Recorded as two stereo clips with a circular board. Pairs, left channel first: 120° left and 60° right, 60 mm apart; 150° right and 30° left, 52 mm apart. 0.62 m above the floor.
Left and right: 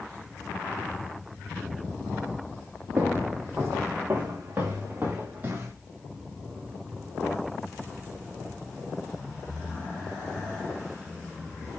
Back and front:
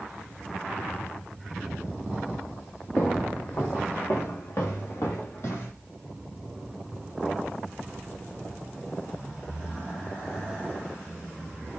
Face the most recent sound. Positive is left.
turn(degrees=-115)